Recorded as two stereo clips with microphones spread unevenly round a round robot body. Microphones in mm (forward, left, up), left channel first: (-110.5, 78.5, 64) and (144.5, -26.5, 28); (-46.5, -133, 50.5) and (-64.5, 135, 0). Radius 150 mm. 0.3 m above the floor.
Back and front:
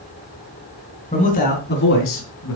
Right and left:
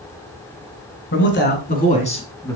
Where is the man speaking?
135° right, 3.5 m; by 2.6 s 170° right, 3 m.